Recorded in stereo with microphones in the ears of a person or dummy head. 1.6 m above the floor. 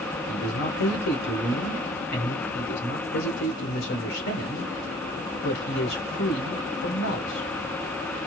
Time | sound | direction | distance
0.3 | a man speaking | 60° left (ahead or behind) | 1.3 m